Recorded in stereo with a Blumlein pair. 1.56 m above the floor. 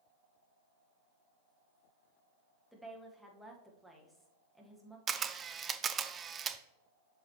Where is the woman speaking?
Straight ahead, 1.6 m.